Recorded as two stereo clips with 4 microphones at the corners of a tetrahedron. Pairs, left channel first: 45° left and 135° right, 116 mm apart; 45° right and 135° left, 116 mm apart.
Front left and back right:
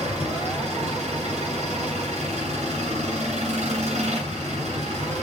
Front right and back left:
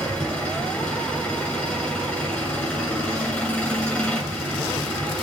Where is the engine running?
120° right, 9 m.